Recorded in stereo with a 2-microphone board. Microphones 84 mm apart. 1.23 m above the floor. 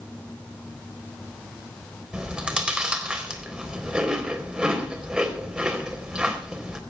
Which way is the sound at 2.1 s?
10° right (ahead or behind).